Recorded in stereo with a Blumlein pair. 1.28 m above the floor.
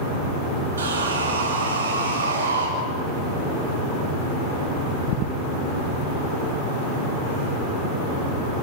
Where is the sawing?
65° right, 6 m.